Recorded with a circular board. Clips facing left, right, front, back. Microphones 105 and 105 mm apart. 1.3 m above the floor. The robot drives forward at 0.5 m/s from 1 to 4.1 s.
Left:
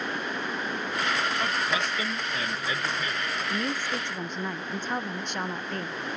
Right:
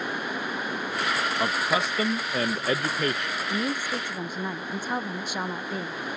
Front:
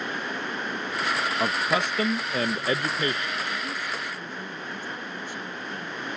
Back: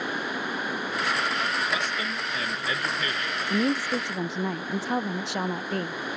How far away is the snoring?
No snoring in this recording.